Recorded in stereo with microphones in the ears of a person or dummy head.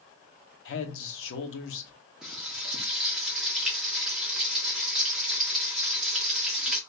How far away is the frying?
About 0.9 m.